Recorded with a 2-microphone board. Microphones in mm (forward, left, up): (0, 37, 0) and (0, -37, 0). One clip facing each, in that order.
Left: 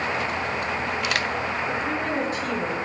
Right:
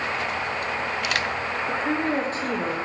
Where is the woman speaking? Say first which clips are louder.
Right 2 dB; 35° right (ahead or behind), 0.6 m.